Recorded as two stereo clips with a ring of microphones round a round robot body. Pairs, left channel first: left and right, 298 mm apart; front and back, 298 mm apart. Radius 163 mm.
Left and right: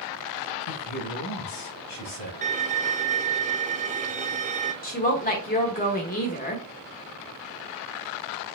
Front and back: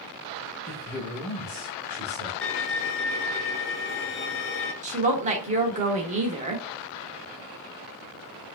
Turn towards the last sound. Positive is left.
turn(degrees=130)